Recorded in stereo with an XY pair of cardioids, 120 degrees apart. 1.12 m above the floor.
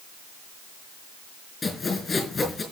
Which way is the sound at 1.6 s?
20° left.